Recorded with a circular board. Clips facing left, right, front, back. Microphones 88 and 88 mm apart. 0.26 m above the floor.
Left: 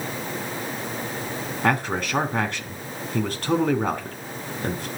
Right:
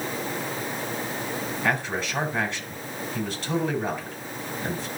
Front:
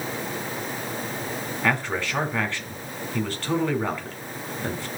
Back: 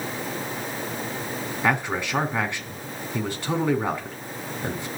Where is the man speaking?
110° left, 3 m.